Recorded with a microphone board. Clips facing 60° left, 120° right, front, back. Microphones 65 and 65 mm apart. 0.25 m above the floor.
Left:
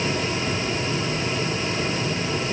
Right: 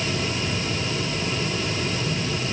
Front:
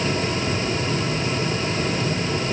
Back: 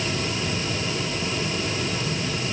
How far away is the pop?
I don't hear a pop.